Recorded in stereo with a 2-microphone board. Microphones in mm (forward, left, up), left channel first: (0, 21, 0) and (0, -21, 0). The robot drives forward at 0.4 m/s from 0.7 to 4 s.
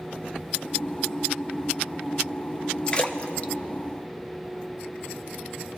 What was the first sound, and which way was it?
A splash, 30° left (ahead or behind).